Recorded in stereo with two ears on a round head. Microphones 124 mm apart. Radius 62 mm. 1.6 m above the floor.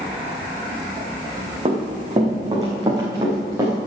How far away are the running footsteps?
About 4.5 m.